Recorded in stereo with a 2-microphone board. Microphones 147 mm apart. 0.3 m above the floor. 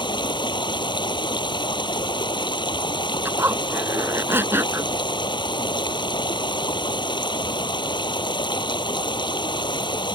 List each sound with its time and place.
0.0 s running water: 30° left (ahead or behind)
3.2 s a zipper: 15° right (ahead or behind)